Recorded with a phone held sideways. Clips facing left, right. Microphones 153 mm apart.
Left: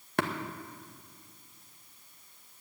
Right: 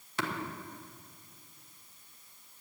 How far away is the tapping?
About 1.1 m.